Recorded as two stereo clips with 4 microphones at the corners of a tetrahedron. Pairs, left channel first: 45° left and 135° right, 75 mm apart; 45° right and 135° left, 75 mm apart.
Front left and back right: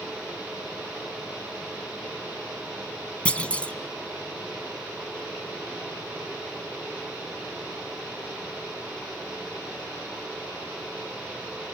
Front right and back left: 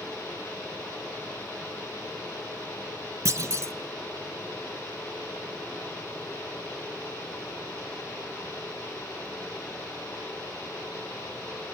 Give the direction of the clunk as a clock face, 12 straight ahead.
8 o'clock.